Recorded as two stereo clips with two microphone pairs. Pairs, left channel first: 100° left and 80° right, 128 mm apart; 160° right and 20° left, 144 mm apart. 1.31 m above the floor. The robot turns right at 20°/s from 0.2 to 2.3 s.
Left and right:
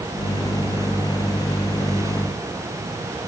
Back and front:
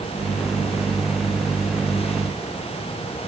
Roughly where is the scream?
I don't hear a scream.